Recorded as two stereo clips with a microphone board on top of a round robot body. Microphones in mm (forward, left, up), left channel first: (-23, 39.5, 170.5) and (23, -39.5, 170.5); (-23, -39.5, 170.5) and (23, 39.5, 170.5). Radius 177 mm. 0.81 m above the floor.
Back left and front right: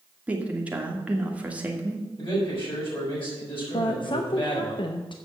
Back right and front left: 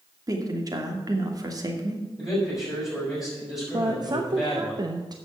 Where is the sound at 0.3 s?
15° left, 2.0 m.